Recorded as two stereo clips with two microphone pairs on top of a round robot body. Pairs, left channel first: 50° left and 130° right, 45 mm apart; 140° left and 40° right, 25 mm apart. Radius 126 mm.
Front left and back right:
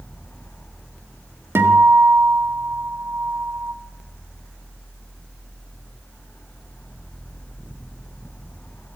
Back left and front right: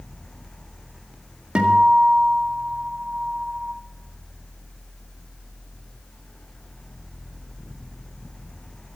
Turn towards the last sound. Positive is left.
turn(degrees=-95)